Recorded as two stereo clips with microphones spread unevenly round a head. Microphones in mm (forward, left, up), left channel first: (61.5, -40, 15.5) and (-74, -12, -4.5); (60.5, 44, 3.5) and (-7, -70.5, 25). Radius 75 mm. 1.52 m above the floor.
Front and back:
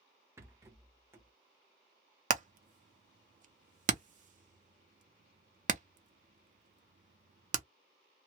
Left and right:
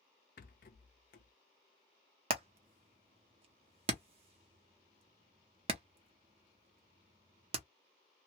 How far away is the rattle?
About 0.7 m.